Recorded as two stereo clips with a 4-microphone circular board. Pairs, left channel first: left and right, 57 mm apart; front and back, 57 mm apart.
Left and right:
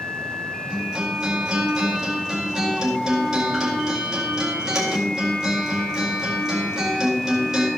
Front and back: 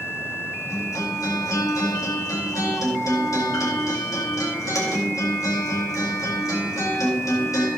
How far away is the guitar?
About 4 m.